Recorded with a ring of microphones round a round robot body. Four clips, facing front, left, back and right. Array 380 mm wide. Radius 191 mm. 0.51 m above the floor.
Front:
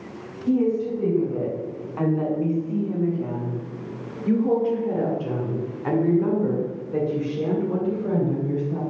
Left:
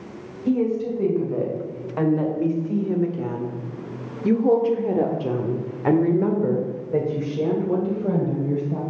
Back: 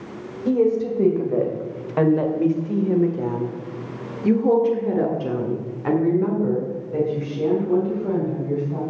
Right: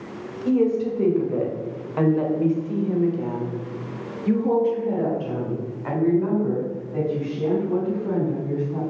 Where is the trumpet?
I don't hear a trumpet.